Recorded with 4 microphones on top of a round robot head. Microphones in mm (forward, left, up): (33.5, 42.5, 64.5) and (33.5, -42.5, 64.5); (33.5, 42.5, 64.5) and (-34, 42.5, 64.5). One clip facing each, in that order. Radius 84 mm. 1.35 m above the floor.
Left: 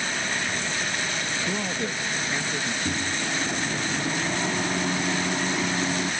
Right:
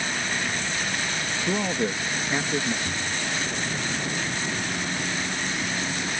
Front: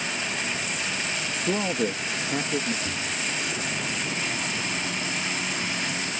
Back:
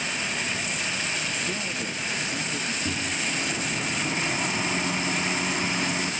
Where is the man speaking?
20° right; by 2.8 s 35° right.